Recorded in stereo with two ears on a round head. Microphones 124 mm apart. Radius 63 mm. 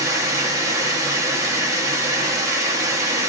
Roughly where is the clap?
I don't hear a clap.